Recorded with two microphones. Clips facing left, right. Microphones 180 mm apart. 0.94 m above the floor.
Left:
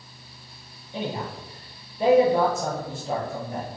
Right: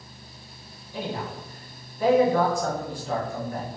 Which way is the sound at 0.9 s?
20° left (ahead or behind).